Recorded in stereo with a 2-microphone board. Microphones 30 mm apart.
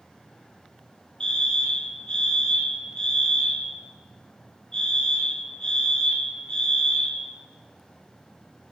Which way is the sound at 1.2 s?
25° left (ahead or behind).